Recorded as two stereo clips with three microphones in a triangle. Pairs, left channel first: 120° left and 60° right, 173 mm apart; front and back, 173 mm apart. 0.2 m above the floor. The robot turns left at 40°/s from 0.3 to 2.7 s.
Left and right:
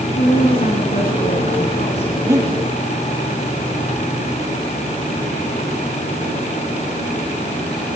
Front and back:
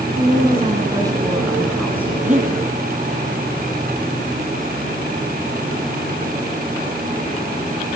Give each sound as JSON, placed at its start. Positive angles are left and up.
{"t": 0.2, "sound": "a woman speaking", "azimuth_deg": 145, "distance_m": 2.5}
{"t": 2.2, "sound": "breathing", "azimuth_deg": -130, "distance_m": 3.5}